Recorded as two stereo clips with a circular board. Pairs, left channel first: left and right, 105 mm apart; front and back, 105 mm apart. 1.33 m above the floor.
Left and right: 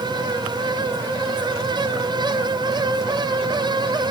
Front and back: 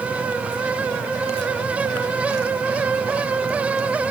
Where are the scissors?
I don't hear scissors.